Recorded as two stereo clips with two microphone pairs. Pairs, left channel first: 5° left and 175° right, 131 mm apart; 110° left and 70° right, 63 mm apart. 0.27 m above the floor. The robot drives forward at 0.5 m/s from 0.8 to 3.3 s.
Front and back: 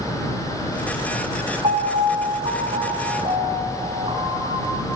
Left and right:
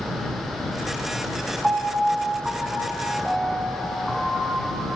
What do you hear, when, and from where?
1.6 s a piano: 145° right, 2.5 m; by 4.8 s 155° right, 3 m